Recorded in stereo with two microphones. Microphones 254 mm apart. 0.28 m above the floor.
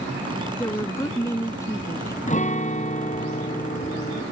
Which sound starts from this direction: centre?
A woman speaking, at 0.6 s.